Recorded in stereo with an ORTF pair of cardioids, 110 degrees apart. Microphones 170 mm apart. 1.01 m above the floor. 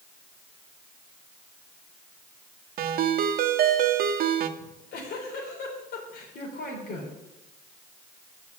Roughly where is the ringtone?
Ahead right.